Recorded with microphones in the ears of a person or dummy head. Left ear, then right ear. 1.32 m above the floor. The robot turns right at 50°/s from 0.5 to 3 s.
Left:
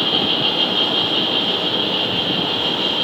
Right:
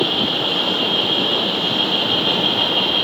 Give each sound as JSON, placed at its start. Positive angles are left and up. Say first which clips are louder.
{"t": 0.0, "sound": "an insect", "louder": "left 1 dB", "azimuth_deg": 135, "distance_m": 7.0}